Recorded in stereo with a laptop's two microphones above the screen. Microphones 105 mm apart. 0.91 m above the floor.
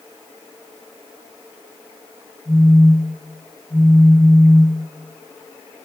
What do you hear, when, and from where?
2.5 s a phone buzzing: 25° left (ahead or behind), 1.0 m